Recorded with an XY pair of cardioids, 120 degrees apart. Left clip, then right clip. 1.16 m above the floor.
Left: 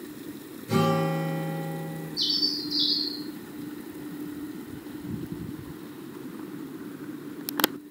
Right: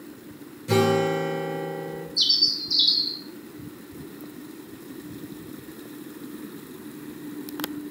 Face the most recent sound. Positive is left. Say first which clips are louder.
# right 5 dB
turn(degrees=-65)